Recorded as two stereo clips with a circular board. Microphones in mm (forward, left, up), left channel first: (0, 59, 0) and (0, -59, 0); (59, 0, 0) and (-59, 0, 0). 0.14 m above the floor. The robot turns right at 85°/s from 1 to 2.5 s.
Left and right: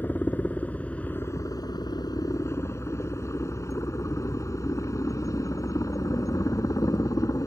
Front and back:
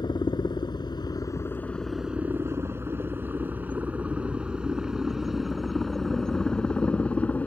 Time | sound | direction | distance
0.0 | a helicopter | 25° left | ?